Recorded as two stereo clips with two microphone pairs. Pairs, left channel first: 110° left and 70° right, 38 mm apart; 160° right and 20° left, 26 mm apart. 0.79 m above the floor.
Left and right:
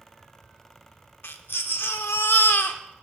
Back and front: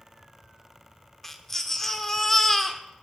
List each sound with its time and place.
1.2 s a baby crying: 125° left, 0.8 m